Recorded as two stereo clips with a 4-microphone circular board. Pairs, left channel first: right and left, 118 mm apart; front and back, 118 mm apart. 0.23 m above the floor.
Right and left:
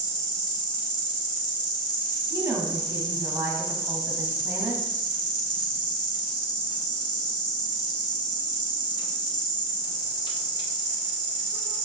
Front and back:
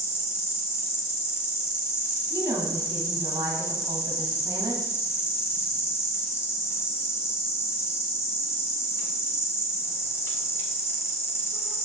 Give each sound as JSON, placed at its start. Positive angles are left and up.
{"t": 0.0, "sound": "an insect", "azimuth_deg": -60, "distance_m": 0.9}
{"t": 2.3, "sound": "a woman speaking", "azimuth_deg": 145, "distance_m": 1.2}